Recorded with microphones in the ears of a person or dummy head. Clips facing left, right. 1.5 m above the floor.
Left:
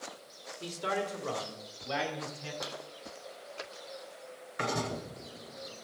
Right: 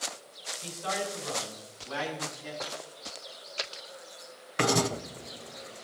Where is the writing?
70° right (ahead or behind), 1.0 m.